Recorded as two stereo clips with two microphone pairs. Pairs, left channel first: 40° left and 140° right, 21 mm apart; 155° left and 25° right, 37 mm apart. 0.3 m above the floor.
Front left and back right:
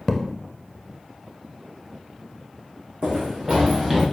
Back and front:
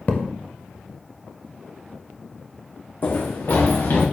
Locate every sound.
0.1 s a thud: 115° left, 0.8 m
3.0 s running footsteps: 175° left, 0.7 m; by 4.0 s 140° left, 1.8 m